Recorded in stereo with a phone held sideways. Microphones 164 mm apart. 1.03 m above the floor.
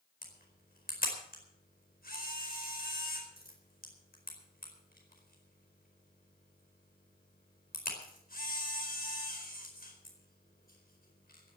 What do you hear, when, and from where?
0.2 s a camera shutter: 65° left (ahead or behind), 4.5 m